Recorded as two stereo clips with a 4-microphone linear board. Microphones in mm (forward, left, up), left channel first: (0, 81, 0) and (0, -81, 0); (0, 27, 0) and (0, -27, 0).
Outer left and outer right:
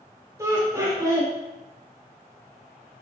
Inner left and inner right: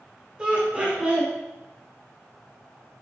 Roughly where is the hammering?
No hammering in this recording.